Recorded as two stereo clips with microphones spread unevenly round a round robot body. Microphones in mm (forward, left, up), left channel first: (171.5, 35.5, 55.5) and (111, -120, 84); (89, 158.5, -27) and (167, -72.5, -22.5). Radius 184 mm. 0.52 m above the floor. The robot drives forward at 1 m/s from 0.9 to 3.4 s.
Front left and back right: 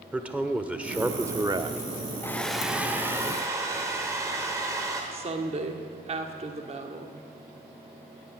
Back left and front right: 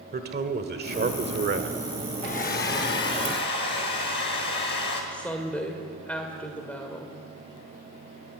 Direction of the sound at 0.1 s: 25° right.